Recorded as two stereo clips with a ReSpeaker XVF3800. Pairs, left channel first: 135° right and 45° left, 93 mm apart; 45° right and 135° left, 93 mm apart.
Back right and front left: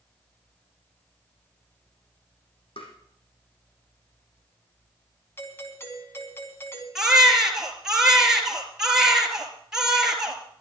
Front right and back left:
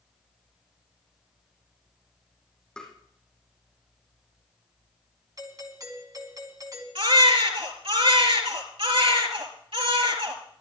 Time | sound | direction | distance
2.8 | tapping | 125° right | 4 m
5.4 | a doorbell | 170° left | 3 m
7.0 | a baby crying | 130° left | 3.5 m